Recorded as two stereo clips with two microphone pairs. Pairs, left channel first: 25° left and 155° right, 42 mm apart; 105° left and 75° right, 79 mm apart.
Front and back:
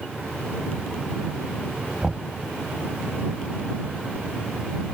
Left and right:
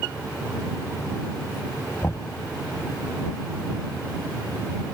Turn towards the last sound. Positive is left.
turn(degrees=140)